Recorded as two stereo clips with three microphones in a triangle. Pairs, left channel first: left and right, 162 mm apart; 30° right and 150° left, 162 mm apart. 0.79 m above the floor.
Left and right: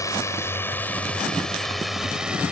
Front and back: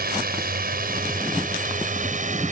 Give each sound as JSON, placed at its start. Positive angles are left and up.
{"t": 0.0, "sound": "a drone", "azimuth_deg": 160}